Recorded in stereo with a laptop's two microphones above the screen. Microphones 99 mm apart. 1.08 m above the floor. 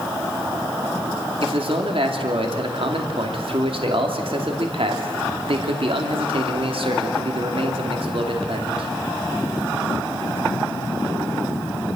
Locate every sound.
1.4 s a man speaking: 65° right (ahead or behind), 2.5 m